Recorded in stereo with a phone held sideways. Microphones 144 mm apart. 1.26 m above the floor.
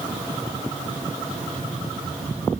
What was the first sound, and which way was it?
Only background noise.